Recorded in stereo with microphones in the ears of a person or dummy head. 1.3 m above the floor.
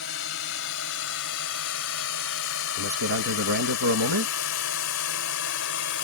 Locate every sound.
0.0 s a drone: 70° left (ahead or behind); by 6.0 s 65° left (ahead or behind)
2.8 s a man speaking: 75° right (ahead or behind)